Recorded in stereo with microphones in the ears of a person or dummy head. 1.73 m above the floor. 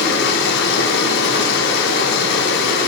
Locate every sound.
0.0 s running water: 60° left (ahead or behind), 6 m